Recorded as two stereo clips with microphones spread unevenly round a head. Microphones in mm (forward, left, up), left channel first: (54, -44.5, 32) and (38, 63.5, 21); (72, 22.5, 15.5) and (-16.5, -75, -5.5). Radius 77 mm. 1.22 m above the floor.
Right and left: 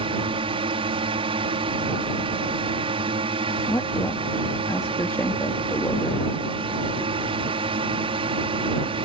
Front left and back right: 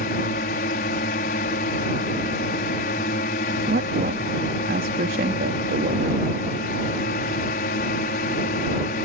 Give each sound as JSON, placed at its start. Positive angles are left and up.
{"t": 0.0, "sound": "a drone", "azimuth_deg": 70}
{"t": 3.7, "sound": "a woman speaking", "azimuth_deg": -160}